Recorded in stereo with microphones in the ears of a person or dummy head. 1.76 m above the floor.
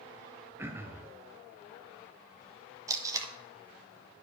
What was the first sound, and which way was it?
Throat clearing, 5° right (ahead or behind).